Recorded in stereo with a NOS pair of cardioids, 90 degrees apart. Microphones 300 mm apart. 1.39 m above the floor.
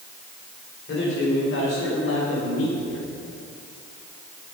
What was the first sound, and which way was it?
A man speaking, 45° left.